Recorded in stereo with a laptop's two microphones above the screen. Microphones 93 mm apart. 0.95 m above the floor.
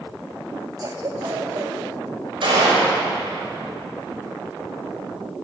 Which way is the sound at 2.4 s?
60° right (ahead or behind).